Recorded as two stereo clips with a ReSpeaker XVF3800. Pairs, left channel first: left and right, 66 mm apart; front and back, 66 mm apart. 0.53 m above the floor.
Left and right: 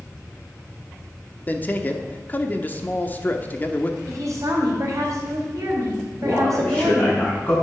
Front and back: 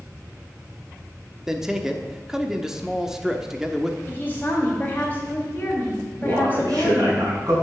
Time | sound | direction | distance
1.5 | a man speaking | 105° left | 0.9 m
4.1 | a woman speaking | 65° right | 3 m
6.2 | a man speaking | 155° left | 5 m